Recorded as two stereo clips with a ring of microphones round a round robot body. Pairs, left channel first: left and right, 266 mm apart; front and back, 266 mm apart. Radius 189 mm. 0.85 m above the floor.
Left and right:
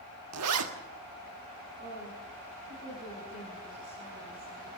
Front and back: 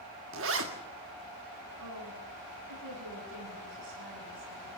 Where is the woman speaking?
160° right, 8 m.